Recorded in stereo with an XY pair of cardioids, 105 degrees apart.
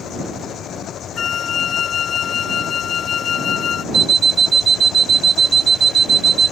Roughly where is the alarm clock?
Ahead right.